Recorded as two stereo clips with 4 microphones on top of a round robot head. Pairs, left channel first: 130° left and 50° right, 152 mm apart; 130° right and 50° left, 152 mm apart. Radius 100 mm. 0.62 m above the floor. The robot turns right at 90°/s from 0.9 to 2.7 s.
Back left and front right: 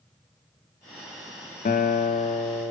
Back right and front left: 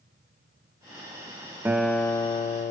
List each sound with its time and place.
1.6 s a guitar: 120° left, 0.8 m; by 2.7 s 145° right, 0.8 m